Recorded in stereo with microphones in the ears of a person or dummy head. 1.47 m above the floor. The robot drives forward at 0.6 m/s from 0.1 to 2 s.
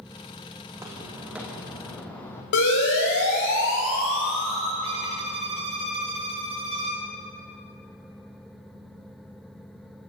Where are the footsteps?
25° right (ahead or behind), 4 m; by 2.4 s 10° left (ahead or behind), 3 m.